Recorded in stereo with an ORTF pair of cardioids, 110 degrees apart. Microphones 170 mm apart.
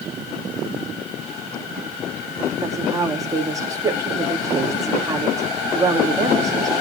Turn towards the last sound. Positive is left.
turn(degrees=-20)